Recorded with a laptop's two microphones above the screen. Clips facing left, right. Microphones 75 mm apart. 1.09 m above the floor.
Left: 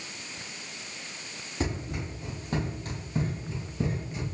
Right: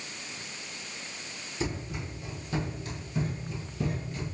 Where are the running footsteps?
50° left (ahead or behind), 2 m; by 4.2 s 15° left (ahead or behind), 1.1 m.